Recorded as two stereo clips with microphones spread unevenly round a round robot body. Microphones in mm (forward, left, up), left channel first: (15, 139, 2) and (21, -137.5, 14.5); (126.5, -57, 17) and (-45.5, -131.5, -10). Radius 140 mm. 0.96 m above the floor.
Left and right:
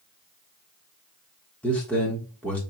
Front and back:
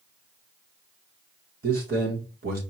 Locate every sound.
1.6 s a man speaking: 175° left, 1.2 m